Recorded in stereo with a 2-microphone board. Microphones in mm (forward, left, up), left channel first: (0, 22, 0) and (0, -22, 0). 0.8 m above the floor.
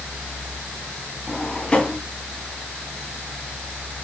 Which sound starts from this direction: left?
A drawer, at 1.3 s.